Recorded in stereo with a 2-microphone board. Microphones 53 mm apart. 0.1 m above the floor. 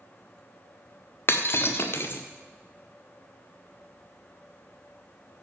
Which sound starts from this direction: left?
Breaking glass, at 1.3 s.